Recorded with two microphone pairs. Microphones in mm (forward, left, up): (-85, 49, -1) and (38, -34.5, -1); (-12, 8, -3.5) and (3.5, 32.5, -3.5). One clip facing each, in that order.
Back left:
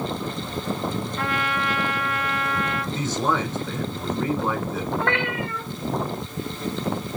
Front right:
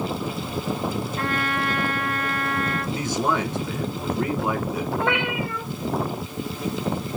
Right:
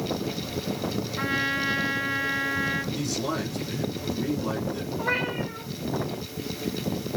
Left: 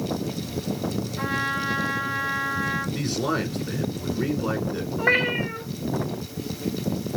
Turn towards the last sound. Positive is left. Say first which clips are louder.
# front right 2 dB, left 7 dB
turn(degrees=45)